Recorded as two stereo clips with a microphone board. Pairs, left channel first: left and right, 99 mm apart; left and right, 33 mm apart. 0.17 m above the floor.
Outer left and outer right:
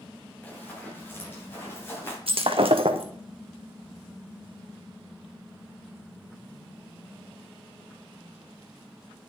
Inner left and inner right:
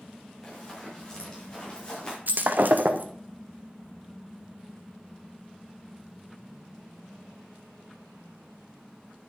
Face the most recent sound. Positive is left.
turn(degrees=-70)  # may be behind; listen again after turning